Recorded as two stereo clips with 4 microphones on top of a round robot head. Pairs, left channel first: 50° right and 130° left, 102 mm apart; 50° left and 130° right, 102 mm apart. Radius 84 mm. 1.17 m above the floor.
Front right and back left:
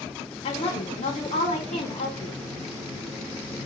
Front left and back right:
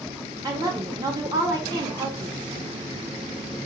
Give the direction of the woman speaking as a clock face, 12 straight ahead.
3 o'clock.